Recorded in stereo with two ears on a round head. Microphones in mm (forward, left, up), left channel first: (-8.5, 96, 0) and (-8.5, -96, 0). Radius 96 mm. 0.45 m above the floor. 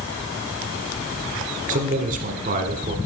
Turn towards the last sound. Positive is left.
turn(degrees=-40)  # may be behind; listen again after turning